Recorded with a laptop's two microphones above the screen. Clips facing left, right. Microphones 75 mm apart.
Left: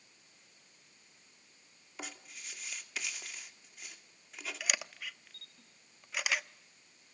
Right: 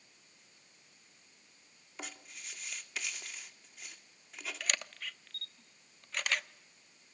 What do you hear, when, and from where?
2.0 s writing: centre (ahead or behind), 2 m
4.6 s a camera shutter: 5° left (ahead or behind), 0.7 m